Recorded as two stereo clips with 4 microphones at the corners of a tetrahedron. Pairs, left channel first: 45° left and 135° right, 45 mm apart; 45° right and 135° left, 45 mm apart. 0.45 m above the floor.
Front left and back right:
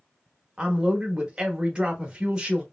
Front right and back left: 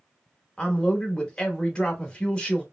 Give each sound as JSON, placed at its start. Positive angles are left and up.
{"t": 0.6, "sound": "a man speaking", "azimuth_deg": -90, "distance_m": 0.8}